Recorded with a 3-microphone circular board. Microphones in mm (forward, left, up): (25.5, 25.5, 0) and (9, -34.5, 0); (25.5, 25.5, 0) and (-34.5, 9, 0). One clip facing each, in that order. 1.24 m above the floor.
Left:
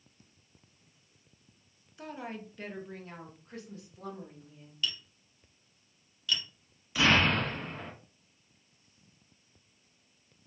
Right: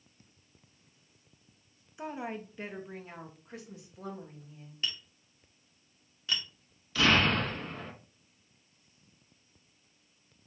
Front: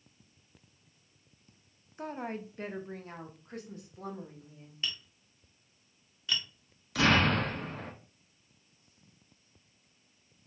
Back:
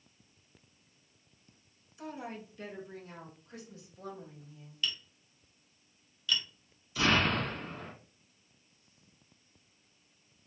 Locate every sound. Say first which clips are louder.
2.0 s a woman speaking: right 3 dB, front 4 dB; 35° right, 0.6 m; by 4.7 s 20° right, 2.0 m
4.8 s tapping: left 1 dB, back 1 dB; 45° right, 1.1 m
7.0 s an explosion: even, front 3 dB; straight ahead, 1.2 m